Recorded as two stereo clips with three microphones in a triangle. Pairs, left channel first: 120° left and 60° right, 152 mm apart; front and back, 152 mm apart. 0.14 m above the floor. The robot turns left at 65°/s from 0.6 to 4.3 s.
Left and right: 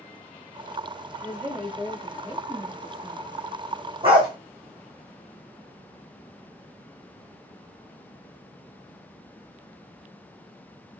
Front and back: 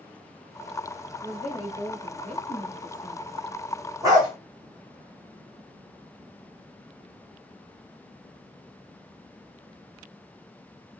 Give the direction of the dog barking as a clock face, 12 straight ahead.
4 o'clock.